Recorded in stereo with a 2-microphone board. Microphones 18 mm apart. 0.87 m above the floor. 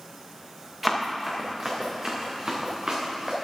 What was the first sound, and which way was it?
Running footsteps, 15° right (ahead or behind).